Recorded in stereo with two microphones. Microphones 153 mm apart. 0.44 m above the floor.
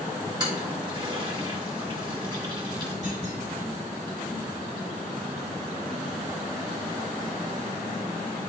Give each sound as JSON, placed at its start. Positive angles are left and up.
{"t": 0.4, "sound": "a toilet flushing", "side_deg": -30, "distance_m": 2.0}
{"t": 3.0, "sound": "a clunk", "side_deg": 45, "distance_m": 3.5}